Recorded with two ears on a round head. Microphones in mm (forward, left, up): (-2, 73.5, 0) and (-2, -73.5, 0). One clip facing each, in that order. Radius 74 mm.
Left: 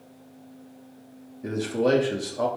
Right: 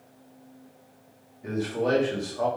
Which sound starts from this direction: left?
A man speaking, at 1.4 s.